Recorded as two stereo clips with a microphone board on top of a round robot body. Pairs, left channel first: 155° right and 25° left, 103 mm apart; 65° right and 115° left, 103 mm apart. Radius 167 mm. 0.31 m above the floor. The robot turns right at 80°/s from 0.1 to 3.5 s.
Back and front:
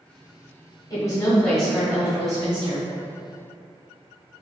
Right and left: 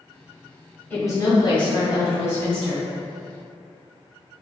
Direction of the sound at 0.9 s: 125° right.